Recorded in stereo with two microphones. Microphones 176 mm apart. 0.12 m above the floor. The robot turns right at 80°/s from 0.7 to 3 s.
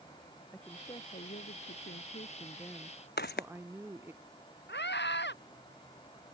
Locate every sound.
0.5 s a woman speaking: 10° left; by 4.2 s 165° right
3.2 s footsteps: 70° left (ahead or behind)
4.7 s a scream: 80° left